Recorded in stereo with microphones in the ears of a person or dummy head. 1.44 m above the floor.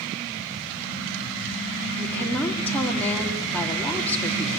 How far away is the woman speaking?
About 3 m.